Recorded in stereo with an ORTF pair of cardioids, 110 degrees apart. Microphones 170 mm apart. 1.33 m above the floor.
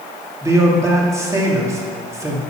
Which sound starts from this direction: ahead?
A man speaking, at 0.4 s.